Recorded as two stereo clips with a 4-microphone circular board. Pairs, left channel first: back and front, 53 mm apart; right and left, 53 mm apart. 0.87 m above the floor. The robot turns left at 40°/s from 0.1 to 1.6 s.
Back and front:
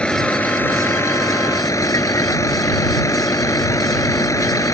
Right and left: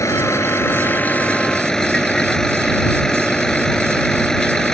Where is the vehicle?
110° right; by 4.8 s 170° right.